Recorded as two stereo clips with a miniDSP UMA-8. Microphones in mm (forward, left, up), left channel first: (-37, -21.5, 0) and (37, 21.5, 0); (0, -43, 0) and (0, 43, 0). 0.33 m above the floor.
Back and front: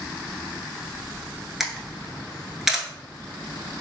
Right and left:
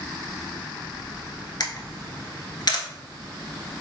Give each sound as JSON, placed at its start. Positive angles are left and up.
{"t": 1.6, "sound": "a camera shutter", "azimuth_deg": -55, "distance_m": 0.8}